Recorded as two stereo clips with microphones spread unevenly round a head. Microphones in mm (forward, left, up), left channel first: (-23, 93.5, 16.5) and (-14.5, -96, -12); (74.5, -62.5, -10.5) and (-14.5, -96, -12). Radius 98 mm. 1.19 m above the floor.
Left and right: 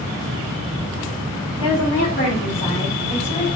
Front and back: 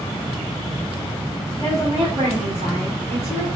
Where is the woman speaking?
110° left, 1.0 m; by 3.5 s straight behind, 1.8 m.